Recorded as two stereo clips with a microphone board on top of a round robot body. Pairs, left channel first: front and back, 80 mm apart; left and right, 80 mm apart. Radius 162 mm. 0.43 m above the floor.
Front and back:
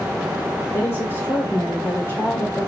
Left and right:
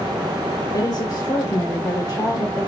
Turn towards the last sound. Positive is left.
turn(degrees=50)